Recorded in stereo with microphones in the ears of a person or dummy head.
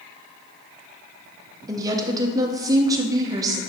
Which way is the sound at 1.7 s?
15° right (ahead or behind).